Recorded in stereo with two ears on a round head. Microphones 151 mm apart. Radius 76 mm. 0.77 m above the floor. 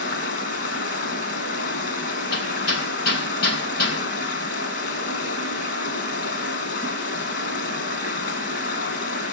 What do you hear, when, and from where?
0.0 s running water: 60° left (ahead or behind), 2 m
2.3 s hammering: 70° left (ahead or behind), 4 m